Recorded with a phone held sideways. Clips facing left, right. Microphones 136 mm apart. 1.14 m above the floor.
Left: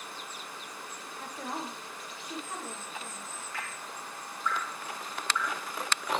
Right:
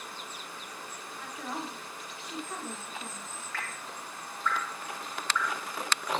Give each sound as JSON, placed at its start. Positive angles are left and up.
{"t": 1.2, "sound": "a woman speaking", "side_deg": 40, "distance_m": 1.1}
{"t": 3.5, "sound": "dripping", "side_deg": 15, "distance_m": 1.5}